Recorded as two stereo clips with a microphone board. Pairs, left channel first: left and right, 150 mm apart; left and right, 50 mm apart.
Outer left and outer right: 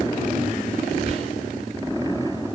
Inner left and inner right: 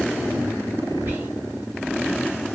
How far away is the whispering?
About 1.5 m.